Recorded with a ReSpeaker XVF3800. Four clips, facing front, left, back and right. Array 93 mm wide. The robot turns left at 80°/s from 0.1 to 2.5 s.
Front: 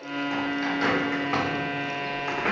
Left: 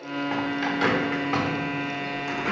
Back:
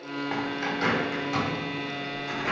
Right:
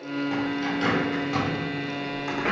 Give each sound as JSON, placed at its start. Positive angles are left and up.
{"t": 0.3, "sound": "a bird", "azimuth_deg": 130, "distance_m": 1.5}